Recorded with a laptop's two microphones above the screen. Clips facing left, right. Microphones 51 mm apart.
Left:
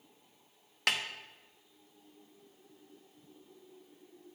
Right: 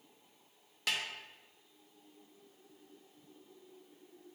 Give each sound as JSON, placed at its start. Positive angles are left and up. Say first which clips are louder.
{"t": 0.9, "sound": "a snare drum", "louder": "left 4 dB", "side_deg": 60, "distance_m": 0.6}